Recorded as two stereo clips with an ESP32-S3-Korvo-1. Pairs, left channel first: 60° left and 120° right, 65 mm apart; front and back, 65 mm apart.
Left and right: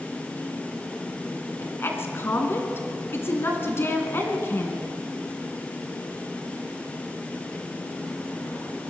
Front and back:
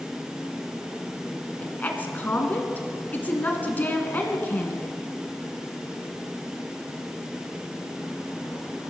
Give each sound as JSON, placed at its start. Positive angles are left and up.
{"t": 1.6, "sound": "a woman speaking", "azimuth_deg": 45, "distance_m": 1.9}